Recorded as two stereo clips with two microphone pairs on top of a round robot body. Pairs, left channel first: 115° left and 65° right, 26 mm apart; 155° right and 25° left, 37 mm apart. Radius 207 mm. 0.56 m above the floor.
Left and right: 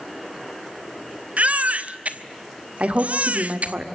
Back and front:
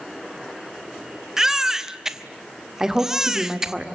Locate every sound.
1.4 s a baby crying: 40° right, 1.7 m
2.8 s a woman speaking: 40° right, 2.5 m